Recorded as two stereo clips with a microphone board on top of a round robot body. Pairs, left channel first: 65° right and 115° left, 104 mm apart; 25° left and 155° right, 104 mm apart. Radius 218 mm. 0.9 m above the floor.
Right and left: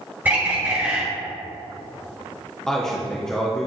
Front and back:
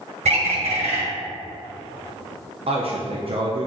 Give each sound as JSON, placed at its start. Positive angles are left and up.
{"t": 0.2, "sound": "a bird", "azimuth_deg": -175, "distance_m": 2.5}
{"t": 2.7, "sound": "a man speaking", "azimuth_deg": -150, "distance_m": 1.1}